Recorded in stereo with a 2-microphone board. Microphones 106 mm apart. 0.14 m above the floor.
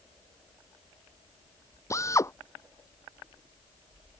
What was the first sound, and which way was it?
A drill, 30° left (ahead or behind).